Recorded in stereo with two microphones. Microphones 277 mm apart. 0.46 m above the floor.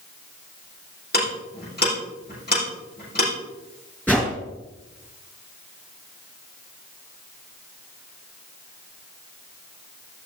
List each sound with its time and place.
1.1 s ticking: 35° left (ahead or behind), 7 m
4.1 s a whoosh: 5° left (ahead or behind), 3 m